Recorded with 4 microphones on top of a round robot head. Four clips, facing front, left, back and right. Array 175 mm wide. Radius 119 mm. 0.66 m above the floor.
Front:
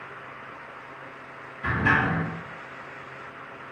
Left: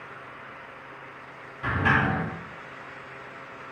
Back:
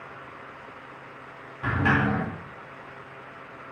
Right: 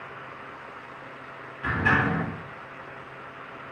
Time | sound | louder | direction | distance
1.6 | a sliding door | even, even | 155° left | 1.5 m